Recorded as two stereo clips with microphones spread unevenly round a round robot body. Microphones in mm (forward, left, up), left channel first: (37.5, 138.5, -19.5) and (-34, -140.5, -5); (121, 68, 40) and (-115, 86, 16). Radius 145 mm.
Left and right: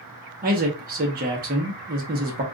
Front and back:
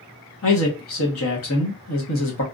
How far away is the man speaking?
About 1.2 m.